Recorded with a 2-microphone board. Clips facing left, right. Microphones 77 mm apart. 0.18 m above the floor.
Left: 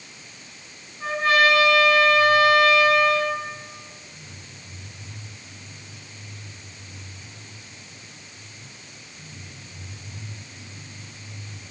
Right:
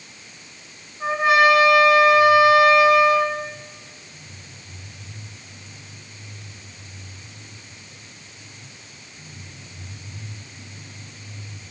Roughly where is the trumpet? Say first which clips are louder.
Right 3 dB; centre.